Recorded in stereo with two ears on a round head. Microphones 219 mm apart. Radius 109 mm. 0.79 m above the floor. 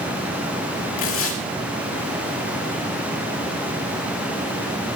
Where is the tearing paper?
60° left (ahead or behind), 2.5 m.